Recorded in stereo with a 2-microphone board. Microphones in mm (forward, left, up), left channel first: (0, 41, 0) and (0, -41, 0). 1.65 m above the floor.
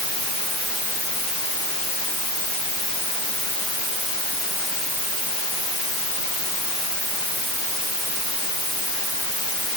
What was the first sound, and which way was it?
Only background noise.